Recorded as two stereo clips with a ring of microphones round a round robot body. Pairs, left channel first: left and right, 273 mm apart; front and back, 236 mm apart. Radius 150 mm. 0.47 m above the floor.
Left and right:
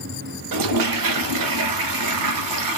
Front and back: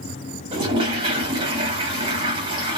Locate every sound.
0.5 s a toilet flushing: 105° right, 0.6 m